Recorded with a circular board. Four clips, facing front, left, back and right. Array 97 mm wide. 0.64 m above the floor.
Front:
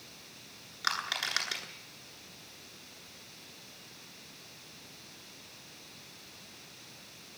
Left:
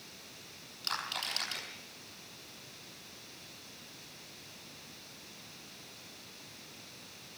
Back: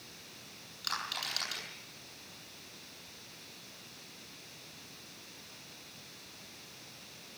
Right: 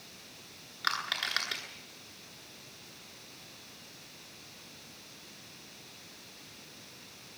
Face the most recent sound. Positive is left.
turn(degrees=-50)